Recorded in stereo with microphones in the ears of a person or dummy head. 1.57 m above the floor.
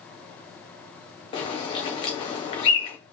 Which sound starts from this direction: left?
A bird, at 1.3 s.